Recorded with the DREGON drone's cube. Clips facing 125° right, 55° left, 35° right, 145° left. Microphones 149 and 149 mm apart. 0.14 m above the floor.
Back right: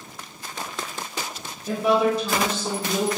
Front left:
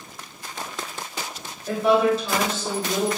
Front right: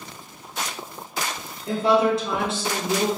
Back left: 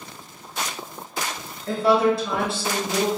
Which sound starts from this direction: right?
A woman speaking, at 1.7 s.